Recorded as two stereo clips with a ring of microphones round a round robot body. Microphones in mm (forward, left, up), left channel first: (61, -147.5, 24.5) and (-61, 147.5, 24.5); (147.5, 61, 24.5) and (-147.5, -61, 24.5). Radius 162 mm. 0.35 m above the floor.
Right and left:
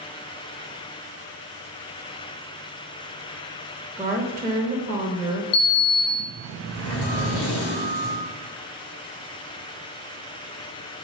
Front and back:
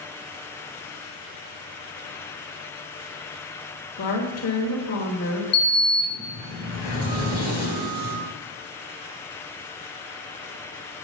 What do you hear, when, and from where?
4.0 s a woman speaking: 35° left, 1.6 m
5.5 s a sliding door: 20° right, 3.5 m